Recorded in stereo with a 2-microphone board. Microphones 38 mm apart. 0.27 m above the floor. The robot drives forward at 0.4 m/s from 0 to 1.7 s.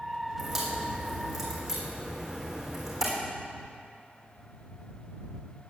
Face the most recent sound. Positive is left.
turn(degrees=-5)  # may be behind; listen again after turning